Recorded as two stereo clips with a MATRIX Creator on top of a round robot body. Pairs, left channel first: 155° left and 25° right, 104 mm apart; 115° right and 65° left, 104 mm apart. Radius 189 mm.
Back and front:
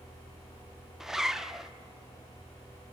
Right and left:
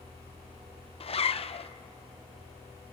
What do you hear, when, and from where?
1.0 s a zipper: 110° right, 1.0 m